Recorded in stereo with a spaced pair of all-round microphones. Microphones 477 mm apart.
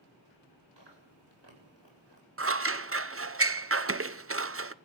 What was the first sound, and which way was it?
Chewing, 60° right (ahead or behind).